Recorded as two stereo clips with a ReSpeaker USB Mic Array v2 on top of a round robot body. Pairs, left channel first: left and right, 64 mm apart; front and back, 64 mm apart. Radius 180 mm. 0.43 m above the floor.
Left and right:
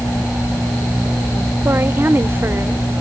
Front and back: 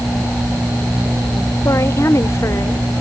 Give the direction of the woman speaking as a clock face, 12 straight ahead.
1 o'clock.